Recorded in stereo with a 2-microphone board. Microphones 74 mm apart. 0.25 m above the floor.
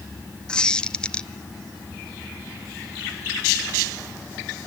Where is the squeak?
10° left (ahead or behind), 0.5 m.